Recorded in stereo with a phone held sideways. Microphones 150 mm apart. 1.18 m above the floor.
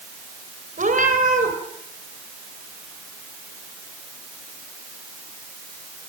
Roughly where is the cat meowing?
Right.